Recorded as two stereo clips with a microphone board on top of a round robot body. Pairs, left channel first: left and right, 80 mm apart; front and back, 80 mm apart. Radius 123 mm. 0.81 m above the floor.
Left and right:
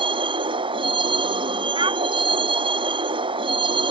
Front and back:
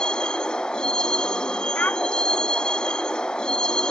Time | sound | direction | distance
0.0 | a vehicle | 80° right | ?
1.8 | a child speaking | 70° right | ?